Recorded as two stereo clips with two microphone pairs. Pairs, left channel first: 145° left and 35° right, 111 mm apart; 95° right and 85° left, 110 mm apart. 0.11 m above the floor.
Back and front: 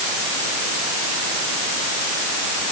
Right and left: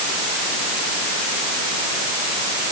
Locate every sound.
Only background noise.